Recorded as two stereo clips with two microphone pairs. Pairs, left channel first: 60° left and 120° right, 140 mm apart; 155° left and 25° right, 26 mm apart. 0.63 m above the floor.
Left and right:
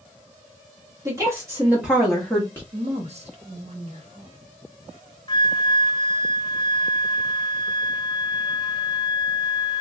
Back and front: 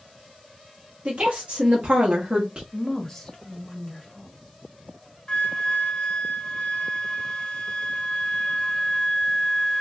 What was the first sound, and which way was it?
A woman speaking, 60° right.